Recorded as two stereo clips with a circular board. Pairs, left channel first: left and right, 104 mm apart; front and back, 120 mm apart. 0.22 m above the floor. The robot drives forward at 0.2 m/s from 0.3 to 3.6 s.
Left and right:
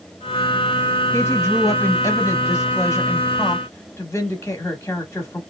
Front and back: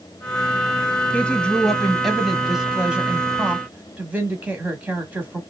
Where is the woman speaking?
70° left, 1.1 m; by 5.4 s 120° left, 1.2 m.